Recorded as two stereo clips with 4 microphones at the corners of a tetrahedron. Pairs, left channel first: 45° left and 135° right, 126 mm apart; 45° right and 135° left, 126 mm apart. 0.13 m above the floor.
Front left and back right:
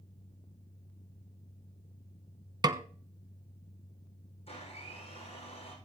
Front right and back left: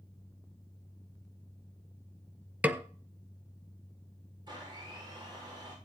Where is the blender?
80° left, 7 m.